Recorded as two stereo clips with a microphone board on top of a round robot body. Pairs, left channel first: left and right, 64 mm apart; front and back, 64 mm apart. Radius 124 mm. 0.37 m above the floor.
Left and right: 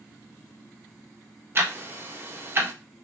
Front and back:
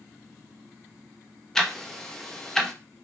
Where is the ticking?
80° right, 0.7 m.